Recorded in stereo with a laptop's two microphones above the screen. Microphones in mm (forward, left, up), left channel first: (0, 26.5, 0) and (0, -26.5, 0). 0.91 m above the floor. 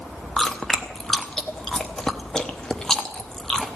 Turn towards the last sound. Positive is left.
turn(degrees=15)  # may be behind; listen again after turning